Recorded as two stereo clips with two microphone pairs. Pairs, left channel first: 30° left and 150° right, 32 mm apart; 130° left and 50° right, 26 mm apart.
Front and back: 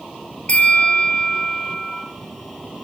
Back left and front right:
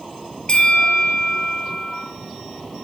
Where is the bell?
75° left, 2.5 m.